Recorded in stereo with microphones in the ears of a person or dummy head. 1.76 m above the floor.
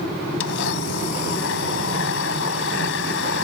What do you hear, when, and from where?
0.4 s a blender: 80° left